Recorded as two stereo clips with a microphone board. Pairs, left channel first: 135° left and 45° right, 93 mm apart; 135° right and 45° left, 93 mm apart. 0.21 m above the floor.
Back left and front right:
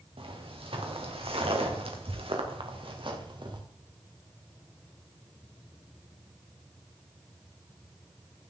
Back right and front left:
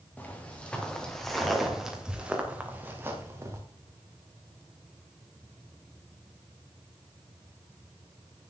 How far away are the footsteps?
About 3 m.